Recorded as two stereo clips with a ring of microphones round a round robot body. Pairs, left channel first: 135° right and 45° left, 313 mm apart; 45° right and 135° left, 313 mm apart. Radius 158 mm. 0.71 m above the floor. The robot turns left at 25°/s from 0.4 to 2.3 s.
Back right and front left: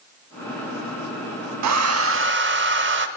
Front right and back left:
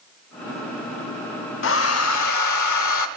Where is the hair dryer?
5° left, 0.8 m; by 3.1 s 10° right, 0.8 m.